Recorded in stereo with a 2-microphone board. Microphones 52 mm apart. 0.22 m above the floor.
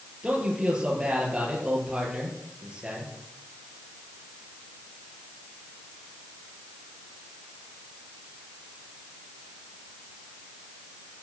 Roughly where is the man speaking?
Centre.